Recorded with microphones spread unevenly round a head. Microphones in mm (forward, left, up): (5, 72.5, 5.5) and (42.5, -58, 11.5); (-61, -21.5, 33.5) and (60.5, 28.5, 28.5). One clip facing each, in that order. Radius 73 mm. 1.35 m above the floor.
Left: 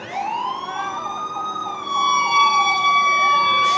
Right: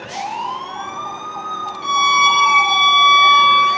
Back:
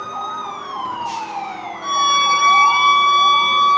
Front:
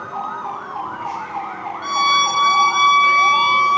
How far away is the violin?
About 2.5 m.